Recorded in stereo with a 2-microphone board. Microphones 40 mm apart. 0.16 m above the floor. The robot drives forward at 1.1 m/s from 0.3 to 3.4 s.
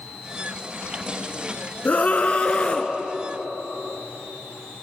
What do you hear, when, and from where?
1.9 s a scream: 40° left (ahead or behind), 2 m; by 2.9 s 30° left (ahead or behind), 3 m